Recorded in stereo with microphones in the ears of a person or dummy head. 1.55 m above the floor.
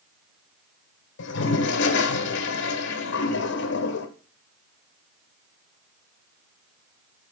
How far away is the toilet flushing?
About 1.1 m.